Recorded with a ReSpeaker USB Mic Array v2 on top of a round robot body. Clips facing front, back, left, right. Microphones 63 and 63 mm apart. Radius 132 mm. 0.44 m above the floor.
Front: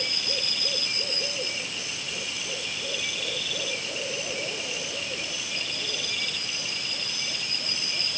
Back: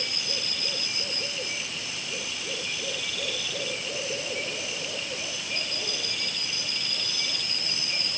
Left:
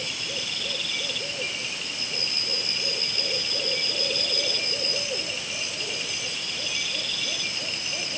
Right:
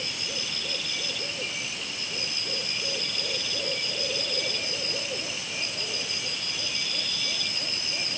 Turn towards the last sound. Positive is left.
No sound to turn to.